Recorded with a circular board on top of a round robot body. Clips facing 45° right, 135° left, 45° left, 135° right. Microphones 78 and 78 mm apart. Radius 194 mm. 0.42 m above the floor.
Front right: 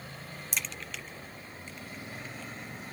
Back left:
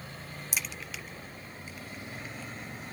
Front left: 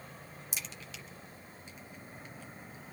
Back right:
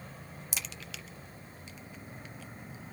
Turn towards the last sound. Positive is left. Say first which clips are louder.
# even, back right 2 dB
turn(degrees=-140)